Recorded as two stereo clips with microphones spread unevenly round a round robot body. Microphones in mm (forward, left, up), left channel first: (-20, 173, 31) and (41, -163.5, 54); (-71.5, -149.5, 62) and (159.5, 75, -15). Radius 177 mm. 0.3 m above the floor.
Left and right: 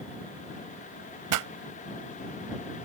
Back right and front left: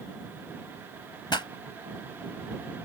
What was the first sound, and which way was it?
A pop, 50° right.